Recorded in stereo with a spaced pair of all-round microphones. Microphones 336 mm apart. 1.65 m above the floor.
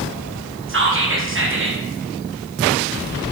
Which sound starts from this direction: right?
Whispering, at 0.7 s.